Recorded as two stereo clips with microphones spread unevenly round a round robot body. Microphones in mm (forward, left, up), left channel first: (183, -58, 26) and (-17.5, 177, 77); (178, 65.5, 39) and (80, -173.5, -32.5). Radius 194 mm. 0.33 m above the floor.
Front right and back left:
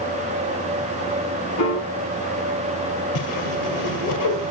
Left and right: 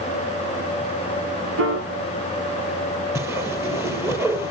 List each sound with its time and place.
1.6 s a piano: 90° right, 2.5 m
3.1 s a whoosh: 30° right, 1.9 m